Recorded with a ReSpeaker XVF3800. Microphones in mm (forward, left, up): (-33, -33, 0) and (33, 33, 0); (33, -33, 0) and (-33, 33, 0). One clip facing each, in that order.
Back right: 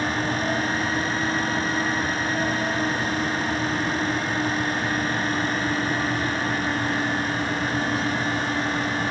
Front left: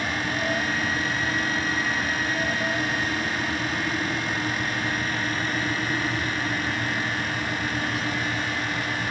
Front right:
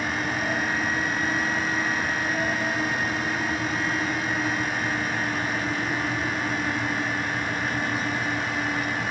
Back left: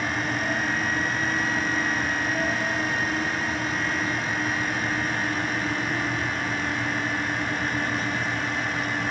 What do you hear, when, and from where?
Only background noise.